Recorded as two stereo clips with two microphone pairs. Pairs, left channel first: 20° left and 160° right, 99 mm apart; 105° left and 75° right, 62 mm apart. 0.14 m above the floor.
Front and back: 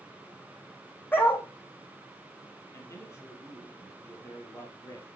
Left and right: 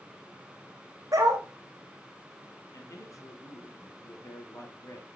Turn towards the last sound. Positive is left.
turn(degrees=80)